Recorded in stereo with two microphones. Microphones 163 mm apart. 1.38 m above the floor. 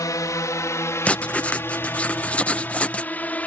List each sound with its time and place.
0.0 s a drone: 20° left (ahead or behind); by 3.5 s 10° left (ahead or behind)
1.1 s writing: 10° left (ahead or behind)